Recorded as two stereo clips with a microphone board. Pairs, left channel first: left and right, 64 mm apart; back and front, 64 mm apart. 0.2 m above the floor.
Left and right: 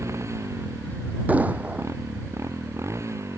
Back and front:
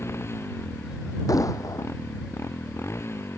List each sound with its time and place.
0.0 s a motorcycle: 130° right
1.3 s an explosion: 155° right